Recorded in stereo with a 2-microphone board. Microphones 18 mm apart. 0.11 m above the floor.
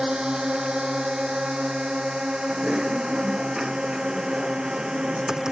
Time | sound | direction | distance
0.0 | a drone | 40° right (ahead or behind) | ?
2.5 | typing on a keyboard | 25° right (ahead or behind) | ?